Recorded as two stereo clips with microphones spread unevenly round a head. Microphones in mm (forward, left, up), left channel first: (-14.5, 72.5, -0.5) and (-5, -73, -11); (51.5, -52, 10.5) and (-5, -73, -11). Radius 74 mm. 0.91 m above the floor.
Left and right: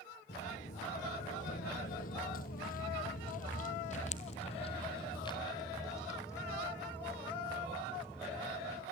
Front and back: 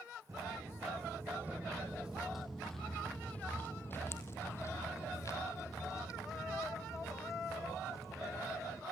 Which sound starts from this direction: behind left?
Footsteps, at 0.3 s.